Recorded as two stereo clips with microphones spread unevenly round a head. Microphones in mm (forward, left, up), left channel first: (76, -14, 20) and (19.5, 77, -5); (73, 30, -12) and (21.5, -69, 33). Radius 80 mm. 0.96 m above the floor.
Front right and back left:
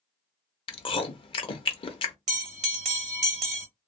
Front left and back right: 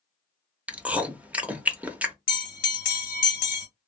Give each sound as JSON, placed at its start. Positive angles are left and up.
{"t": 0.7, "sound": "chewing", "azimuth_deg": -20, "distance_m": 0.6}
{"t": 2.3, "sound": "a bell", "azimuth_deg": 110, "distance_m": 0.7}